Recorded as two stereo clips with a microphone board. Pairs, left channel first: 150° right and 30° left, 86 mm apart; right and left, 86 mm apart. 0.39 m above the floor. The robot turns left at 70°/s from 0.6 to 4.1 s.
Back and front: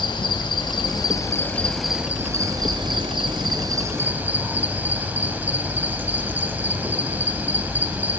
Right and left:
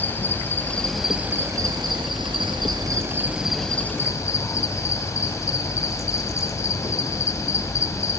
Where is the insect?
155° right, 1.3 m; by 8.2 s 40° right, 1.3 m.